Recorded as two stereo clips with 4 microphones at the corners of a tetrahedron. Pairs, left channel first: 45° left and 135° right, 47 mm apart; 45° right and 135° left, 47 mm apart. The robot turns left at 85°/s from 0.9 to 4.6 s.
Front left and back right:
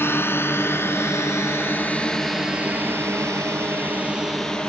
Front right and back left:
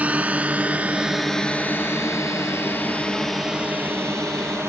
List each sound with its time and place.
0.0 s a drone: 75° left; by 4.7 s 115° left